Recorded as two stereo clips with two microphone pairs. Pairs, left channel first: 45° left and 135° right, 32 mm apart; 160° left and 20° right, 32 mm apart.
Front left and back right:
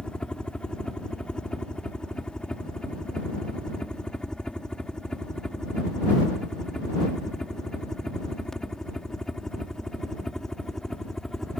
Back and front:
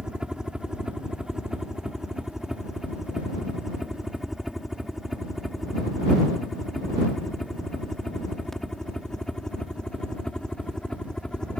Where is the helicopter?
25° left; by 11.6 s 120° left.